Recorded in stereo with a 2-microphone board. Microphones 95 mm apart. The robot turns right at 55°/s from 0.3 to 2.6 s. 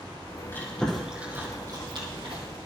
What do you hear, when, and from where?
0.5 s chewing: 25° left (ahead or behind), 3.5 m; by 2.4 s 80° right, 3.5 m